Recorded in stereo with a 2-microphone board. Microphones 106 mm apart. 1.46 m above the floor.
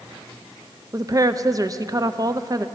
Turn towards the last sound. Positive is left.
turn(degrees=-35)  # may be behind; listen again after turning